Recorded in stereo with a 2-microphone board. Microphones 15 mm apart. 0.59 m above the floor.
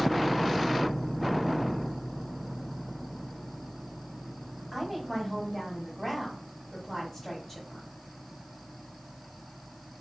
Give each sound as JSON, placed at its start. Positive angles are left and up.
{"t": 4.7, "sound": "a woman speaking", "side_deg": 25, "distance_m": 2.5}